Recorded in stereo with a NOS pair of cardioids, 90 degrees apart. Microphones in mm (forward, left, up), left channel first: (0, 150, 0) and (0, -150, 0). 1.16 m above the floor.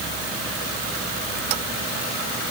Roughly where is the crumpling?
I don't hear crumpling.